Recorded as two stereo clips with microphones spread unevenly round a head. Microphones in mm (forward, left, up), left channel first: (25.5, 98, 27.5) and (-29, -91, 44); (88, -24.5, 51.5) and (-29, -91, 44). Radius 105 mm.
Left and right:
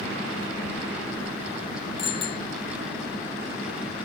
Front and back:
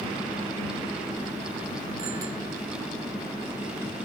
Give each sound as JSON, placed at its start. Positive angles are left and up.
{"t": 2.0, "sound": "a bicycle bell", "azimuth_deg": 140}